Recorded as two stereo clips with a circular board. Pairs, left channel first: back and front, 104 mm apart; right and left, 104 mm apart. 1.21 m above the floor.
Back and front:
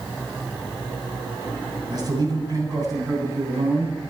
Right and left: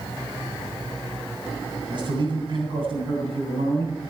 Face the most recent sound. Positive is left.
turn(degrees=60)